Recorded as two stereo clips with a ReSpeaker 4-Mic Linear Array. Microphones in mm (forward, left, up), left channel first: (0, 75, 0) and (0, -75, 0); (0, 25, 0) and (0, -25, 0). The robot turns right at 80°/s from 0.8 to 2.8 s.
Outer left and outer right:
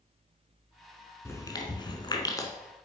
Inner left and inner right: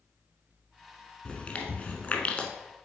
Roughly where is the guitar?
I don't hear a guitar.